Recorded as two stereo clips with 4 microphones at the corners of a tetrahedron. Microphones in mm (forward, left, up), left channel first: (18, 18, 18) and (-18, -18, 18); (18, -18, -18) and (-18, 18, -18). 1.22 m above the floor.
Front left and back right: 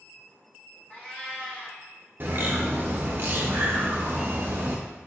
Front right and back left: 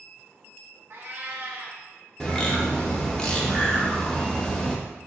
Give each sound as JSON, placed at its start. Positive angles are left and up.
{"t": 0.9, "sound": "a cat meowing", "azimuth_deg": 105, "distance_m": 0.8}
{"t": 2.2, "sound": "a bird", "azimuth_deg": -115, "distance_m": 0.5}